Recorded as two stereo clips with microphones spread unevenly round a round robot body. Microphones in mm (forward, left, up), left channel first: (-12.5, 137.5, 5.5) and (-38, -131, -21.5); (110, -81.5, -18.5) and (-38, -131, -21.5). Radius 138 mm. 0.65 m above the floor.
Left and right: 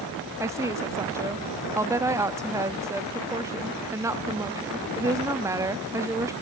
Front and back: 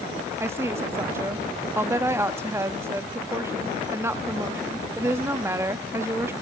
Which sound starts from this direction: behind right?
A woman speaking, at 0.4 s.